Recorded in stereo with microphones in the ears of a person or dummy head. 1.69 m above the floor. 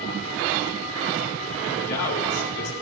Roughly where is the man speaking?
Left.